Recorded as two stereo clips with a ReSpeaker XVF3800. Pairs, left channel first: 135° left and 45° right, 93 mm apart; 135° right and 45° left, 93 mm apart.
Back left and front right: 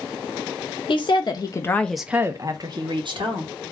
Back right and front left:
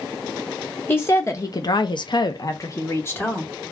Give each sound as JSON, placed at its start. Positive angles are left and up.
{"t": 0.9, "sound": "a woman speaking", "azimuth_deg": 160, "distance_m": 0.9}